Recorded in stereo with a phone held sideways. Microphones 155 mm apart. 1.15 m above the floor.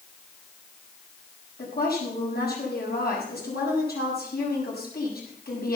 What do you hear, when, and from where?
1.6 s a woman speaking: 80° left, 7 m